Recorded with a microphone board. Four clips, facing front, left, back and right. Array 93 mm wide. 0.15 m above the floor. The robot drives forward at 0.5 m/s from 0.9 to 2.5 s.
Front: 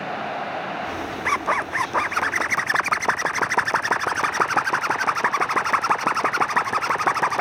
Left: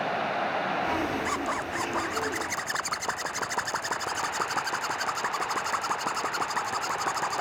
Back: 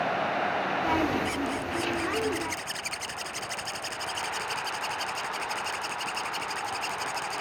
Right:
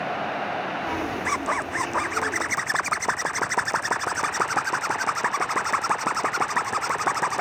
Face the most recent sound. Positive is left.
turn(degrees=-15)